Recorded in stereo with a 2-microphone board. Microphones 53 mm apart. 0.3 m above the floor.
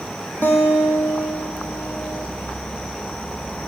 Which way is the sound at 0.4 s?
35° left (ahead or behind).